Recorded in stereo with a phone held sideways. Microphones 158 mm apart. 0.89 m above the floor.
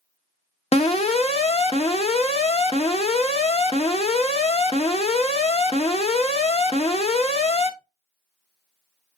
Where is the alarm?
40° left (ahead or behind), 0.8 m.